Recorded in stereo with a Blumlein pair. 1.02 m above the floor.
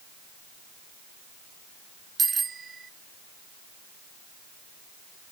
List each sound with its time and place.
2.2 s a bicycle bell: 15° right